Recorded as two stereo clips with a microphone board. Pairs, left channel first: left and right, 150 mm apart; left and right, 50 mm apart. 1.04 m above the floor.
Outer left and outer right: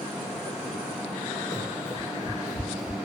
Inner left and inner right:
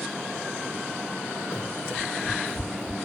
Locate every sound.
1.5 s running footsteps: 50° left (ahead or behind), 1.6 m; by 3.1 s 40° left (ahead or behind), 1.4 m